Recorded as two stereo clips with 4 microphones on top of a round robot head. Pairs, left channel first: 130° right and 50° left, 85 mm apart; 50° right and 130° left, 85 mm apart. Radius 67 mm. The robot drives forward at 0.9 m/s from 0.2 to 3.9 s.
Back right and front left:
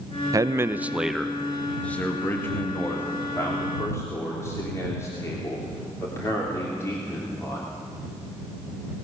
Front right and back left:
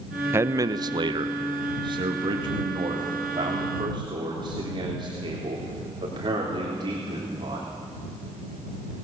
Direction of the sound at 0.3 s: 75° left.